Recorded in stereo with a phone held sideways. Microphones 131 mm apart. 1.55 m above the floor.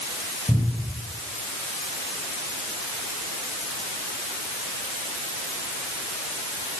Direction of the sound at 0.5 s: 20° right (ahead or behind).